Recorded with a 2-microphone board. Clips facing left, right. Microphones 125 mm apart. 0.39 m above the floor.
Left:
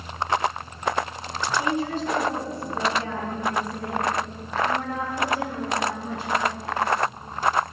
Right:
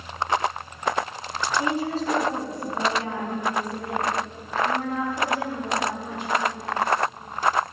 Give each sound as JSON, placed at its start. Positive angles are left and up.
{"t": 1.6, "sound": "a woman speaking", "side_deg": -35, "distance_m": 3.5}